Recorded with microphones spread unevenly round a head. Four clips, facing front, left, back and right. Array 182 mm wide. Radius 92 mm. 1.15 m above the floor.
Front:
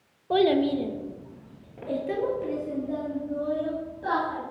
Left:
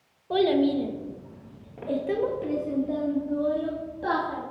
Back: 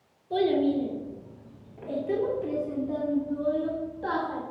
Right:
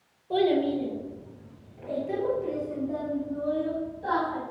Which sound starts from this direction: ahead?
A child speaking, at 0.3 s.